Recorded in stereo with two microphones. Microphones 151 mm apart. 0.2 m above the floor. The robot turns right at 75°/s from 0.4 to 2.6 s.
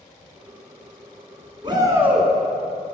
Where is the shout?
45° right, 1.7 m; by 2.3 s 5° left, 1.7 m.